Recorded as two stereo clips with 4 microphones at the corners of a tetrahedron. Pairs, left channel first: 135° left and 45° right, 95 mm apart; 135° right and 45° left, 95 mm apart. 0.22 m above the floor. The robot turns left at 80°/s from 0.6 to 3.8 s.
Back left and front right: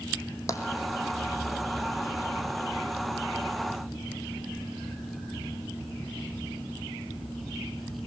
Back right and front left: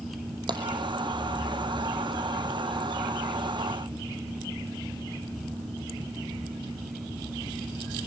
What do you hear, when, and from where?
0.5 s tapping: 80° left, 2.5 m; by 0.7 s 75° left, 2.5 m